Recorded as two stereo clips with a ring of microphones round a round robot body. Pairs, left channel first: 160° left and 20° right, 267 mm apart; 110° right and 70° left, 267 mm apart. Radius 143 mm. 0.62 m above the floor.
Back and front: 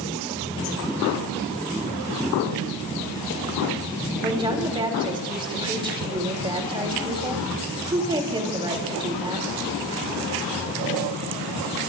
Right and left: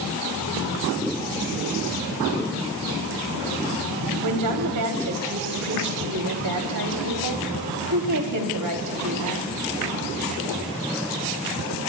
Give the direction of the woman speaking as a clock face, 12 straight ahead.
10 o'clock.